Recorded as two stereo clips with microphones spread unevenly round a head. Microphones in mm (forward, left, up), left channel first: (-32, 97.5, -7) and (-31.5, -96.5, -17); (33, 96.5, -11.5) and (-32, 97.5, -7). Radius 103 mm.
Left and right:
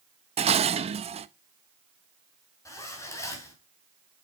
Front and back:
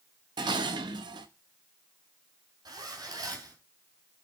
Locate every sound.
0.4 s dishes clattering: 150° right, 0.7 m
2.6 s a zipper: 165° left, 3.5 m